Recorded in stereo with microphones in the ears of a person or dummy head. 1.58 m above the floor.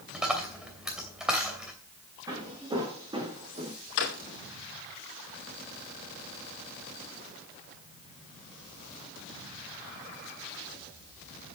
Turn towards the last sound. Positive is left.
turn(degrees=65)  # may be behind; listen again after turning